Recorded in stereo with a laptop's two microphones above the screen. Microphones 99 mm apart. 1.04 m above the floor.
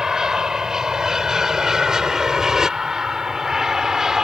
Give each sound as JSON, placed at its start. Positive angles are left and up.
{"t": 0.0, "sound": "an aircraft", "side_deg": -5}